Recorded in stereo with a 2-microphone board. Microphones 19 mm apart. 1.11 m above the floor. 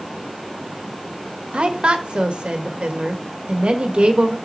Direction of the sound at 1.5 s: 75° right (ahead or behind).